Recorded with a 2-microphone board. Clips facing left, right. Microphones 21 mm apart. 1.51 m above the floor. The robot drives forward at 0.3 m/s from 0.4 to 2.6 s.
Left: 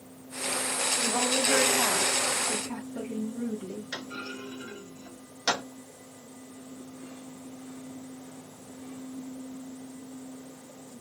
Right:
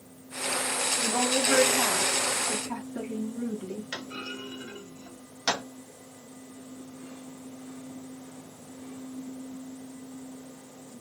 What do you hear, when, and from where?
1.0 s a woman speaking: 65° right (ahead or behind), 1.3 m; by 3.9 s 80° right, 1.2 m
3.9 s a clunk: 40° right (ahead or behind), 1.3 m